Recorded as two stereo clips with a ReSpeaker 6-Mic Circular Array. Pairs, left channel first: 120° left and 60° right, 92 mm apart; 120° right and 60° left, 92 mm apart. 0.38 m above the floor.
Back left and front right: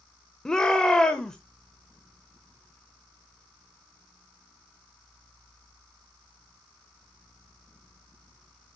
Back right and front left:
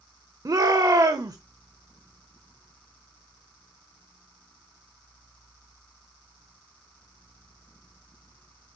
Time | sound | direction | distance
0.5 | a shout | 40° left | 1.0 m